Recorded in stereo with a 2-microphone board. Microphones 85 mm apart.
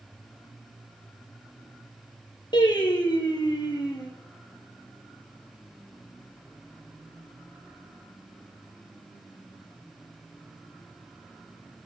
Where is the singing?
60° left (ahead or behind), 4 m.